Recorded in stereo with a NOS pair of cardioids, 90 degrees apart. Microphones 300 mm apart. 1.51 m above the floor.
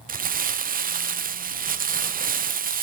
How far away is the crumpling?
About 0.7 m.